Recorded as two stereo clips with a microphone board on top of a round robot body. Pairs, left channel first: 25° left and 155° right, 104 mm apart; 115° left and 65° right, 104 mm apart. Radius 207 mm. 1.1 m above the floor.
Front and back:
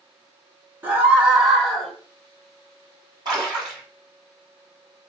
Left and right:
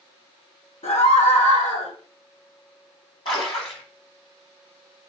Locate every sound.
0.8 s a scream: 130° left, 1.1 m; by 1.9 s 105° left, 1.6 m
3.2 s a splash: 155° left, 0.5 m